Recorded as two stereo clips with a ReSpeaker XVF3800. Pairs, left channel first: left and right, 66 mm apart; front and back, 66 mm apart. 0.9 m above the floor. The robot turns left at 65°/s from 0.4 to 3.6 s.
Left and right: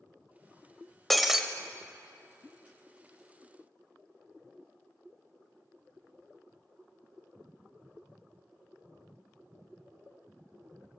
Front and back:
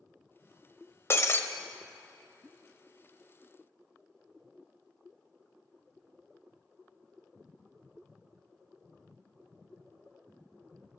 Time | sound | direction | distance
1.1 | breaking glass | 5° left | 0.8 m